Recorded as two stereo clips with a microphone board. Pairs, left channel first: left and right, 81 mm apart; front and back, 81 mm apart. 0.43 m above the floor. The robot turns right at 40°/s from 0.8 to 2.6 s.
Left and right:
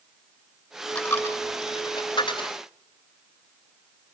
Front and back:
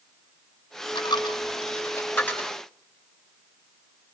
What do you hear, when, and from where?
0.9 s a dropped coin: 15° left, 2 m; by 2.5 s 80° left, 2 m